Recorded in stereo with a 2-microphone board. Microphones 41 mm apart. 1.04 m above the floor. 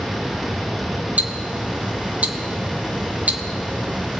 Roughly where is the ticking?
Right.